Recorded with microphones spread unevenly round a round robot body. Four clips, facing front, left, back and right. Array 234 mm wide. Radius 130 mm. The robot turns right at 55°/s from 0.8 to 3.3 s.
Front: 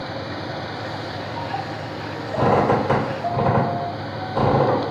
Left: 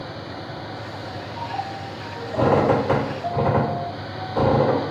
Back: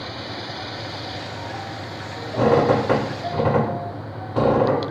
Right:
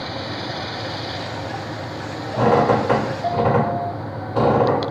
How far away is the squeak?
About 1.9 m.